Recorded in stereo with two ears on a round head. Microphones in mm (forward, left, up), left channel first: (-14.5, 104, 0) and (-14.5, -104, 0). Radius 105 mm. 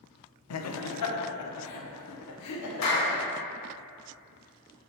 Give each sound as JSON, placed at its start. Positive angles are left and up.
{"t": 0.5, "sound": "laughter", "side_deg": 65, "distance_m": 0.8}
{"t": 2.8, "sound": "a clap", "side_deg": 85, "distance_m": 2.5}